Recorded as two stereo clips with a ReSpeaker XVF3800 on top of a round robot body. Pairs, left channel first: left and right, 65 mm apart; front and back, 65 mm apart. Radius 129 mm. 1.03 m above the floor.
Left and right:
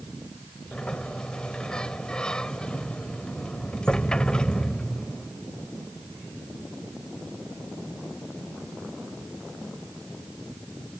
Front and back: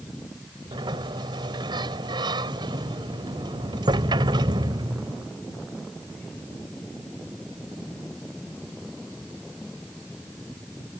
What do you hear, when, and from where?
0.7 s a sliding door: 170° left